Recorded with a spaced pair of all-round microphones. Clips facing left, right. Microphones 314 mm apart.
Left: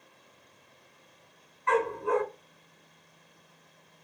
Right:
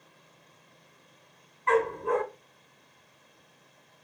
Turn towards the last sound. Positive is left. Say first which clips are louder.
# right 2 dB
turn(degrees=-40)  # may be behind; listen again after turning